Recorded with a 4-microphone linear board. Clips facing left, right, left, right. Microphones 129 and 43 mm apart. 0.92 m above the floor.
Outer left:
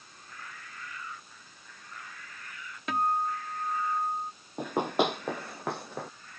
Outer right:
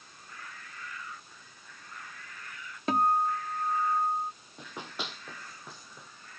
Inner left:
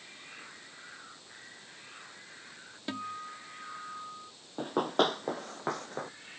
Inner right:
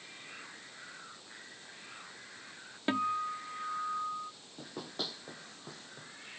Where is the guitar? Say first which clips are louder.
Outer right 3 dB, inner right 7 dB; 30° right (ahead or behind).